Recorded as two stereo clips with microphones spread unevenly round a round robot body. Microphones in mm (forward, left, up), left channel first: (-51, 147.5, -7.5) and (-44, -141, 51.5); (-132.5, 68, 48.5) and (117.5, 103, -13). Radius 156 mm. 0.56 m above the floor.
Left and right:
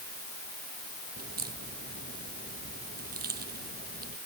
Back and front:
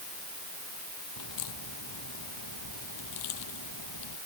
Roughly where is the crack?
Behind right.